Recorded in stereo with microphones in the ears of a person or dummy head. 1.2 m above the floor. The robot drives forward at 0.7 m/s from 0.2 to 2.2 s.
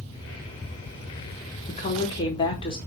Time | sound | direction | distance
1.7 | a woman speaking | 35° left (ahead or behind) | 1.5 m